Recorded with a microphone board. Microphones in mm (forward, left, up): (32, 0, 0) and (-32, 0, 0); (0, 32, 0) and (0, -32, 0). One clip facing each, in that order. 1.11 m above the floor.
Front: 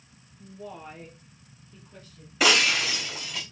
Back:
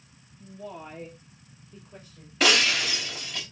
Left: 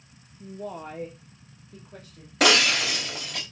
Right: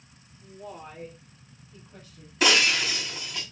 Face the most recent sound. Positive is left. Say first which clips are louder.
# front 1 dB, left 2 dB
turn(degrees=85)